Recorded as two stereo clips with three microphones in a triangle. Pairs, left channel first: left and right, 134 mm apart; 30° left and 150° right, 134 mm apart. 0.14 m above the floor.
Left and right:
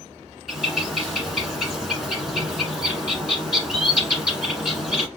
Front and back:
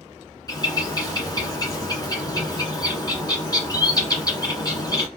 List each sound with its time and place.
0.5 s a bird: 5° left, 1.4 m